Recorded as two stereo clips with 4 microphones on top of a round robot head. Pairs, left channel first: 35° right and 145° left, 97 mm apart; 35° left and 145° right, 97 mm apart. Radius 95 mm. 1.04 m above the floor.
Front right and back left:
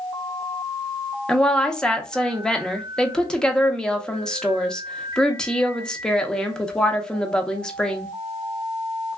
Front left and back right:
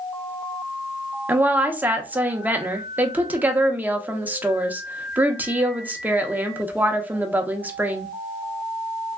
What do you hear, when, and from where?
1.3 s a woman speaking: 105° right, 0.7 m